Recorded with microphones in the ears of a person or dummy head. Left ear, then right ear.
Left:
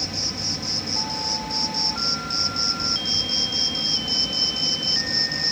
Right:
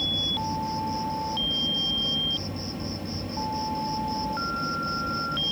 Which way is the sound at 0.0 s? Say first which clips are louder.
Right 1 dB; 60° left (ahead or behind).